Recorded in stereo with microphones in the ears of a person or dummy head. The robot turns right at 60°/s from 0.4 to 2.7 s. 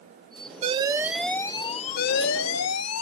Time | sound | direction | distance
0.6 | an alarm | 35° right | ?